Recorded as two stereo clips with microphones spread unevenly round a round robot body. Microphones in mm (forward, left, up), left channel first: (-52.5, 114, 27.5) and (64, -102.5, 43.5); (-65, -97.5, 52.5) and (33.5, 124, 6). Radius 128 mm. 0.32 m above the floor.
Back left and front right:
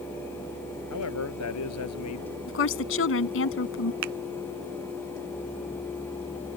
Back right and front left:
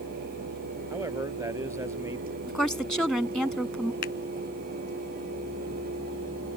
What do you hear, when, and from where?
0.9 s a man speaking: 145° left
2.5 s a woman speaking: 155° left
4.0 s a finger snap: 60° right